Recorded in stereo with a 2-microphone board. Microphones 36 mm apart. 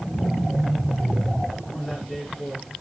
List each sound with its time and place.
1.7 s a man speaking: 15° left (ahead or behind), 4 m